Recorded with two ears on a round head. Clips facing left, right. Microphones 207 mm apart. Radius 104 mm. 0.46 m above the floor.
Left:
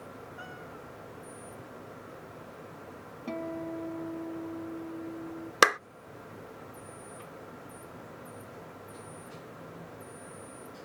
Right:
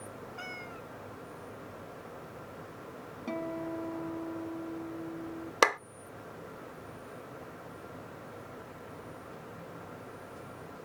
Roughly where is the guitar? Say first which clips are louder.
Even; centre.